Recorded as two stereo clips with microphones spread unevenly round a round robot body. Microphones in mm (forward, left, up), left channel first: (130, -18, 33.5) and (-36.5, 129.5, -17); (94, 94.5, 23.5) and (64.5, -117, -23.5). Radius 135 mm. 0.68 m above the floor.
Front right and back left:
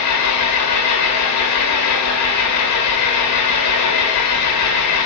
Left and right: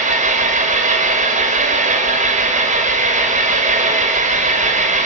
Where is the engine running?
45° right, 2 m.